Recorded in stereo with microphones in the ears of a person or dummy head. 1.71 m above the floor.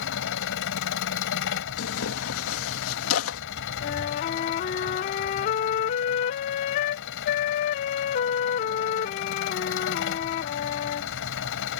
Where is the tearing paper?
80° left.